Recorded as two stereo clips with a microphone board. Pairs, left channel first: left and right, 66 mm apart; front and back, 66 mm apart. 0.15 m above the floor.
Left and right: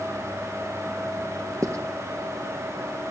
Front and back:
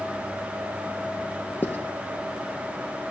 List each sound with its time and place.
1.6 s writing: 55° right, 1.4 m